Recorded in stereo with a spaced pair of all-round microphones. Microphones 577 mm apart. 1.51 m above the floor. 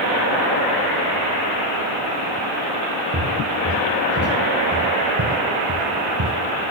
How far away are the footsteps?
About 3 m.